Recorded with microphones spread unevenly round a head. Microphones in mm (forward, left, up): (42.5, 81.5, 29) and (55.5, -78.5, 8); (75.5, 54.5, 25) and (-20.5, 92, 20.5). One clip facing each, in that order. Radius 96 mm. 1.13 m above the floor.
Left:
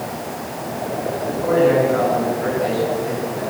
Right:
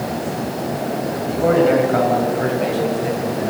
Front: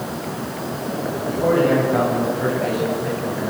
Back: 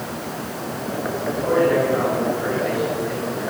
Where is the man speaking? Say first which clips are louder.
Right 1 dB, front 1 dB; 65° right, 8 m; by 3.5 s 60° right, 10 m.